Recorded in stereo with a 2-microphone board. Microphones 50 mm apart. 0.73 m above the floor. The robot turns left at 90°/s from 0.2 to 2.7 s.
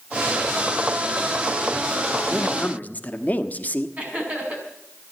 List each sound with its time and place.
2.3 s a man speaking: straight behind, 1.1 m; by 3.9 s 145° left, 1.1 m
4.0 s laughter: 25° right (ahead or behind), 5.5 m